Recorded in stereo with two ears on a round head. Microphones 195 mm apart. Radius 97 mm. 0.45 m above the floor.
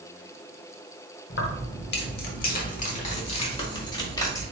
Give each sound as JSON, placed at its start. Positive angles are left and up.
{"t": 1.3, "sound": "keys jangling", "side_deg": 55, "distance_m": 1.1}